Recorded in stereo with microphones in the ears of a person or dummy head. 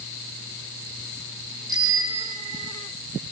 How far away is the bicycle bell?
About 3 m.